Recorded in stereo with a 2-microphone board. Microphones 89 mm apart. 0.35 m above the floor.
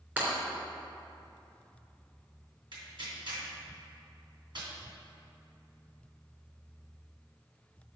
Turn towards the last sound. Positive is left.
turn(degrees=-65)  # may be behind; listen again after turning